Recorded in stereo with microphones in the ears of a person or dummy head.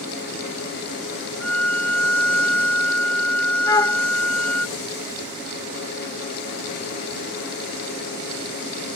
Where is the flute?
20° left (ahead or behind).